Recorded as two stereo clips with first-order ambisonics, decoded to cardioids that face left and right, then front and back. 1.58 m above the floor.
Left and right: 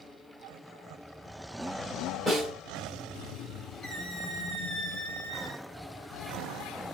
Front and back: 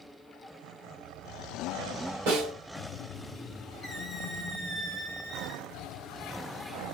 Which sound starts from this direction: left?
A squeak, at 3.8 s.